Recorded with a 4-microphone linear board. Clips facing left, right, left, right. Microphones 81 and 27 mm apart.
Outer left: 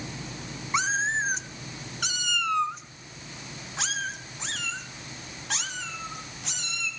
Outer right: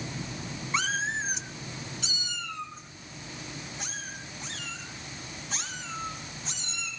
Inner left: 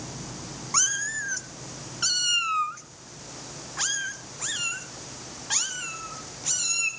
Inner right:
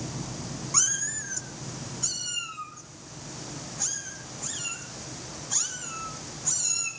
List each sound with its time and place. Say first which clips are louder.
0.7 s a cat meowing: outer left 4 dB, inner left 5 dB; 20° left (ahead or behind), 1.3 m; by 6.9 s 65° left (ahead or behind), 4.5 m